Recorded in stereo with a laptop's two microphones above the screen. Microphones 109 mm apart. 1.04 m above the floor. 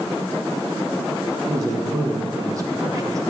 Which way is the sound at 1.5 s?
30° right (ahead or behind).